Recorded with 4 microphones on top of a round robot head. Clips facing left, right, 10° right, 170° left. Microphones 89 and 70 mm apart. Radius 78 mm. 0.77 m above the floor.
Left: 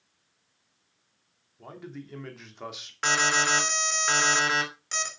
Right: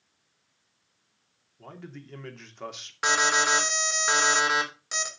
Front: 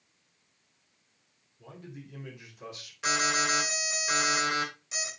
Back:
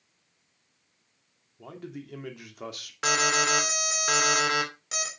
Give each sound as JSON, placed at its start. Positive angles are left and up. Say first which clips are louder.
{"t": 1.6, "sound": "a man speaking", "louder": "left 2 dB, back 6 dB", "azimuth_deg": 170, "distance_m": 2.5}
{"t": 3.0, "sound": "an alarm", "louder": "right 1 dB, back 3 dB", "azimuth_deg": -170, "distance_m": 3.0}